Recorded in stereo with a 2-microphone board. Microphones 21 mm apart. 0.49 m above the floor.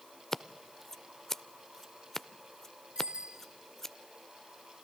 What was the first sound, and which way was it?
Scissors, 20° left (ahead or behind).